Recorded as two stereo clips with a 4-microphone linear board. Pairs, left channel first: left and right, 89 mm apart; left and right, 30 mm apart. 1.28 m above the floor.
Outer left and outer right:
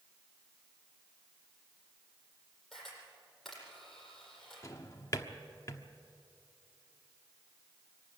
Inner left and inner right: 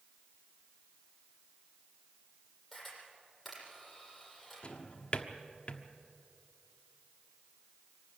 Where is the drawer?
35° left (ahead or behind), 1.1 m.